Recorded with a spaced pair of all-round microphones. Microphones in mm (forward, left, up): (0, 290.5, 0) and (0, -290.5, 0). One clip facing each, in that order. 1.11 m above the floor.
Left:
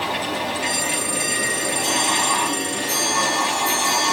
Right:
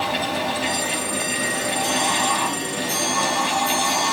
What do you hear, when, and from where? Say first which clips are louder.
0.0 s a fan: right 1 dB; 55° right (ahead or behind), 4.5 m